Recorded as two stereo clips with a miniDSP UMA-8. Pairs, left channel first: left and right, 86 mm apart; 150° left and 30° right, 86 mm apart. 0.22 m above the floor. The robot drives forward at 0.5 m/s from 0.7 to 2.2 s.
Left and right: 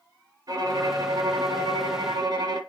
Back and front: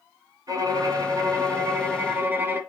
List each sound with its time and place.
0.5 s a violin: 60° right, 2.0 m; by 2.6 s 90° right, 1.8 m